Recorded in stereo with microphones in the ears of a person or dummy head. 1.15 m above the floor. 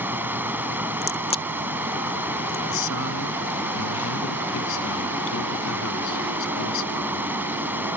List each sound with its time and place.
0.0 s running water: 10° right (ahead or behind)
1.0 s a crack: 30° left (ahead or behind)
2.7 s a man speaking: 75° left (ahead or behind)